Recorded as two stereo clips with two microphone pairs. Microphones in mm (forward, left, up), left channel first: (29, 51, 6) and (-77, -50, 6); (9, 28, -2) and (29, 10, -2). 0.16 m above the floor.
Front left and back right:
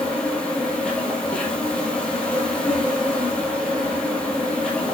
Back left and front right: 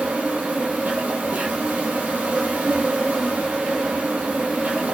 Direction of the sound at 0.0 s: 40° right.